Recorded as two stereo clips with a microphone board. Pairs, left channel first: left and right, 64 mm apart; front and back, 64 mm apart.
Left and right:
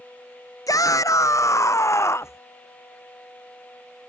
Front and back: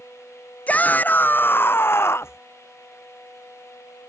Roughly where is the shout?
Ahead left.